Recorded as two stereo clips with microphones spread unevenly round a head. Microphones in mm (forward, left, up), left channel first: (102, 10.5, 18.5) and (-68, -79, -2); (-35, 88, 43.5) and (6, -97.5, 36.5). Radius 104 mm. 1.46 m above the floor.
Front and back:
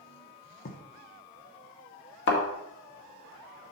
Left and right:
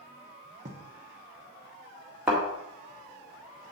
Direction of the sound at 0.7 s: 20° right.